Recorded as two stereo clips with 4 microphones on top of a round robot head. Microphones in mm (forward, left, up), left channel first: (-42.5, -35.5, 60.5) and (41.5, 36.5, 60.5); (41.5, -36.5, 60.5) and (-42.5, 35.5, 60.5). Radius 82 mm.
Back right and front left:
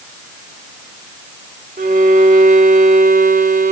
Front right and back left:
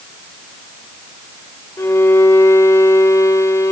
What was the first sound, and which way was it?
A violin, 25° left.